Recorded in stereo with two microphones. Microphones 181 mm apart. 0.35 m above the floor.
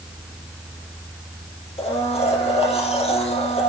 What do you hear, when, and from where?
1.8 s a blender: 35° left (ahead or behind), 4 m